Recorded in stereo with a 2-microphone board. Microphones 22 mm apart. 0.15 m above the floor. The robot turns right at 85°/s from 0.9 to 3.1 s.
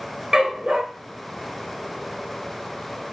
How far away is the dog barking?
About 1.0 m.